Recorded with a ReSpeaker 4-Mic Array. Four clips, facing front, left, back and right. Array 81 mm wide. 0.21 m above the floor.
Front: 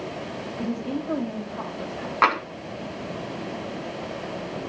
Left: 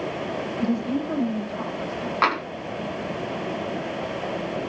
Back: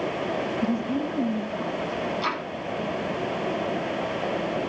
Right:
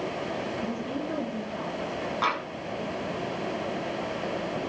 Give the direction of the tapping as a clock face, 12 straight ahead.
11 o'clock.